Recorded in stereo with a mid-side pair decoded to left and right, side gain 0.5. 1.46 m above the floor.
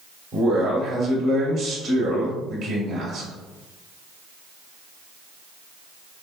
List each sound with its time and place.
0.3 s a man speaking: 55° right, 1.9 m